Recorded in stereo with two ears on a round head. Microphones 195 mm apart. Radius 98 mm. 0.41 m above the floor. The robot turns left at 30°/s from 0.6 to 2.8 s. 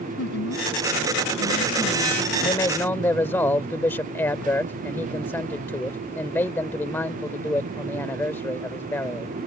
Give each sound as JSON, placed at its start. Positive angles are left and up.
{"t": 0.2, "sound": "a woman speaking", "azimuth_deg": 85}
{"t": 2.4, "sound": "a man speaking", "side_deg": 20}